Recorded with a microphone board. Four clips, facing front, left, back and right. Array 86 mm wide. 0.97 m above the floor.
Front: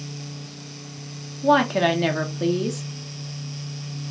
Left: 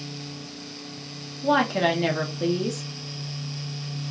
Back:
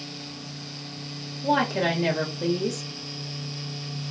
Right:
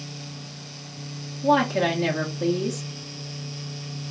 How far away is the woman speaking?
About 1.1 m.